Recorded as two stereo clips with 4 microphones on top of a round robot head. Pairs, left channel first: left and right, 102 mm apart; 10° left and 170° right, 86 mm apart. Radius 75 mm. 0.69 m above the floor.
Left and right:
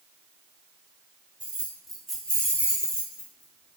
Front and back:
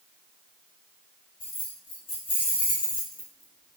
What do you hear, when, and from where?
1.4 s keys jangling: 10° right, 1.7 m; by 3.8 s 75° left, 1.1 m